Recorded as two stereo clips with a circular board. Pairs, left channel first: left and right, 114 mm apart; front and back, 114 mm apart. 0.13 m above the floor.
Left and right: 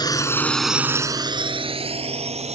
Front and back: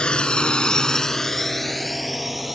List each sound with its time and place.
0.0 s a drone: 75° left; by 2.5 s 90° right